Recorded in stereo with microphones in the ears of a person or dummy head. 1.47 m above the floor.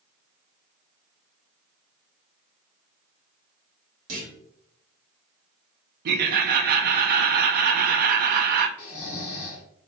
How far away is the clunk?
About 1.7 m.